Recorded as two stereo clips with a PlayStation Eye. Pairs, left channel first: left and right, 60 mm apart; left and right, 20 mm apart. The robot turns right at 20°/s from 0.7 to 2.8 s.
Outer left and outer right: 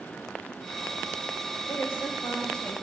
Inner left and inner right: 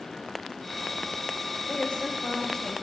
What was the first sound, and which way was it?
A woman speaking, 45° left (ahead or behind).